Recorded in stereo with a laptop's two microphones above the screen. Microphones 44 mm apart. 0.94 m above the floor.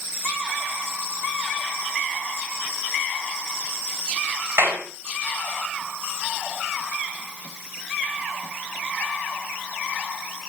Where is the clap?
65° right (ahead or behind), 5 m.